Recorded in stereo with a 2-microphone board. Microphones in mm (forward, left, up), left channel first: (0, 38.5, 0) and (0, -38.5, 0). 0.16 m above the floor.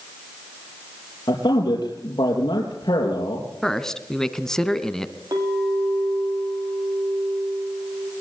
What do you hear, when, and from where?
1.3 s a man speaking: 65° left (ahead or behind), 3.5 m
3.6 s a man speaking: 5° left (ahead or behind), 1.2 m
5.3 s a clink: 55° right (ahead or behind), 5 m